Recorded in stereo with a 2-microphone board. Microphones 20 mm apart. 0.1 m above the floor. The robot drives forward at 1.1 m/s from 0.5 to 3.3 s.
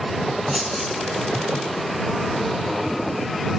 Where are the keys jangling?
10° left (ahead or behind), 4 m.